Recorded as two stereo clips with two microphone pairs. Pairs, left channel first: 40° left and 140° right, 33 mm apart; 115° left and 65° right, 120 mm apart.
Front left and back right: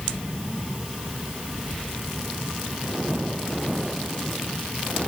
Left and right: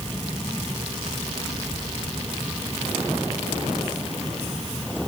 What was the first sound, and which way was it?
Only background noise.